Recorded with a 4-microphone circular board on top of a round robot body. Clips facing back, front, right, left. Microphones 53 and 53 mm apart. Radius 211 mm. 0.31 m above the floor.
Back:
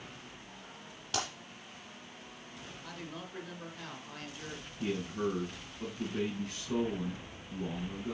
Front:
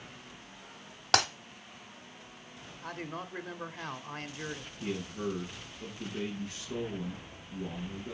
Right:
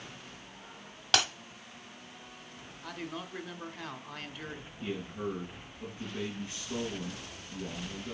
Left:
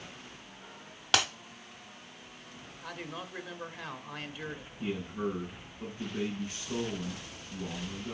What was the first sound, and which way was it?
Breaking glass, 5° left.